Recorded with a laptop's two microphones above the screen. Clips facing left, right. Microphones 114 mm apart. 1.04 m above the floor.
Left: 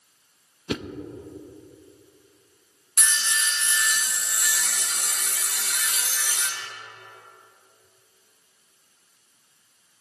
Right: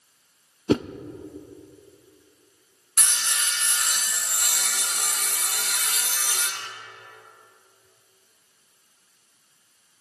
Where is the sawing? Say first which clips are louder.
Left 3 dB; 60° right (ahead or behind), 0.9 m.